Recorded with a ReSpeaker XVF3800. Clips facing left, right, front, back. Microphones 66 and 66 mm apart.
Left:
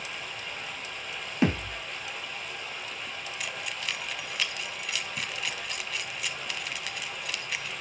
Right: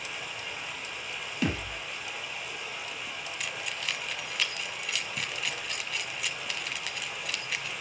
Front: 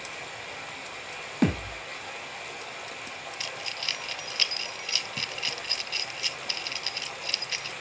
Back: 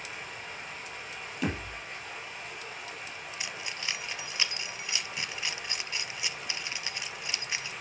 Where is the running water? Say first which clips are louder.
Even, front 2 dB; 5° right, 4.5 m.